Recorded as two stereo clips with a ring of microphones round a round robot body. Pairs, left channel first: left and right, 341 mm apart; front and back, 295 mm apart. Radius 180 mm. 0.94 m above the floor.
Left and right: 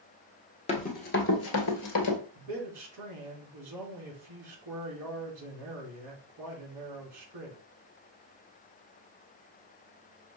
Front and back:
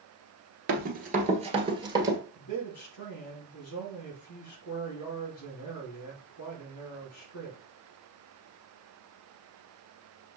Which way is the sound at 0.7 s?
150° left.